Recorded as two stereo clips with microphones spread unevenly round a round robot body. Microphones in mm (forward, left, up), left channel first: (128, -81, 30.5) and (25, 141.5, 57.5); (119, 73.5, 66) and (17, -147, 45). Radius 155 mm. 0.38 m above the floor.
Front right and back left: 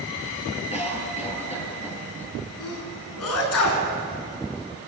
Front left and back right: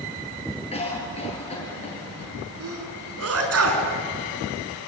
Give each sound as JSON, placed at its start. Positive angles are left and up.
{"t": 0.7, "sound": "a cough", "azimuth_deg": 0, "distance_m": 8.0}
{"t": 2.6, "sound": "a sneeze", "azimuth_deg": -95, "distance_m": 5.5}